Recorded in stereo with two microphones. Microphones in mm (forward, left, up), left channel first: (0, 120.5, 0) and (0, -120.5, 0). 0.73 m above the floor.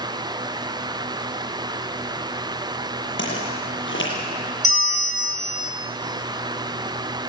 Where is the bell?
65° right (ahead or behind), 2.5 m.